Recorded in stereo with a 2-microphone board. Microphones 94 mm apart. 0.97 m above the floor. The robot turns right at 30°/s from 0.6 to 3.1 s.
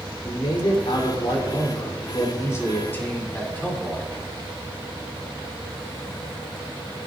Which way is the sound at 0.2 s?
85° left.